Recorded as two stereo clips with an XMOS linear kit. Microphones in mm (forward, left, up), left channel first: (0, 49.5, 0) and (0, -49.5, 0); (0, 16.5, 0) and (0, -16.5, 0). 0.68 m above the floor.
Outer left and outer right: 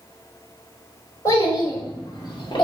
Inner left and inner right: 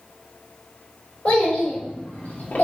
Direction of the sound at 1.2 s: 35° left (ahead or behind).